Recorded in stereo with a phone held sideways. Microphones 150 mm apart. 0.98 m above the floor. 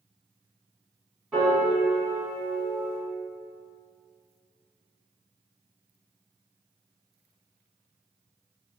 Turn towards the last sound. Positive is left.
turn(degrees=-5)  # may be behind; listen again after turning